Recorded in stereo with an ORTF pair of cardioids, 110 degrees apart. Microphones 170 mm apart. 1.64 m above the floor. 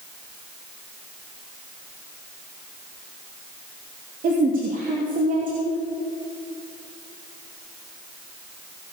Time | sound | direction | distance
4.2 | a woman speaking | 55° right | 3 m